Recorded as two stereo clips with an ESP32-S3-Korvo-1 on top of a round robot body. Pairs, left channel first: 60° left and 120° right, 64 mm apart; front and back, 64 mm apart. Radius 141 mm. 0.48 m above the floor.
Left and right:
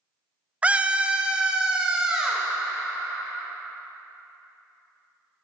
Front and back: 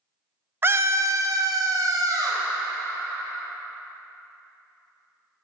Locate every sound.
0.6 s a scream: 175° right, 0.7 m; by 2.5 s 160° left, 1.9 m